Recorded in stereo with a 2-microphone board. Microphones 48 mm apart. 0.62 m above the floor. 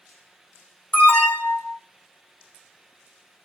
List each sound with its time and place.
0.9 s an alarm: 35° left (ahead or behind), 2 m